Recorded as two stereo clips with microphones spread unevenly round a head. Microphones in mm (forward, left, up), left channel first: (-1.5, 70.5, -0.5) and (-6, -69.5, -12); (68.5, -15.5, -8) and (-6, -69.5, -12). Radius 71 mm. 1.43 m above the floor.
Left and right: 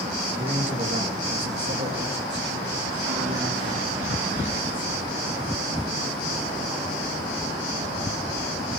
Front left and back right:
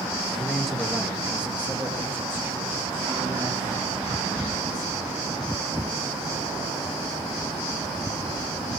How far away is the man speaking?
About 2.5 m.